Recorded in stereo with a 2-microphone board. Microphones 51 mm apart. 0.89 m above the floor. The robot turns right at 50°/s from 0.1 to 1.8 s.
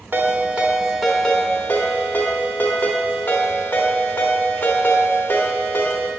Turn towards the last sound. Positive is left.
turn(degrees=40)